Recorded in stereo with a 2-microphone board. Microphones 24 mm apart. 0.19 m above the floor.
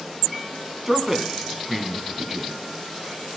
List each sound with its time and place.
0.9 s a man speaking: 15° right (ahead or behind), 1.4 m